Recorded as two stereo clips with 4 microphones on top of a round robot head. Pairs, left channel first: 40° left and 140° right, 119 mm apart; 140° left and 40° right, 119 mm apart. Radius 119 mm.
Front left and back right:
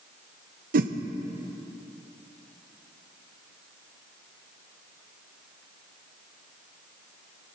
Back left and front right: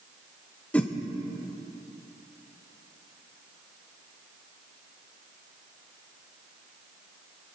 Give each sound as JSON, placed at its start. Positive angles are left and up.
{"t": 0.7, "sound": "a whoosh", "azimuth_deg": -140, "distance_m": 0.6}